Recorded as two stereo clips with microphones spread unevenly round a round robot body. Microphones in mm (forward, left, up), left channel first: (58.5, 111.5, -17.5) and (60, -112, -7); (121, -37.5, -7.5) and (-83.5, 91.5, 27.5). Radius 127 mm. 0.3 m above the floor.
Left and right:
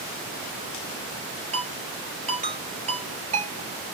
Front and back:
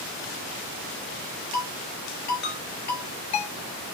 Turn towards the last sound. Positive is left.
turn(degrees=-30)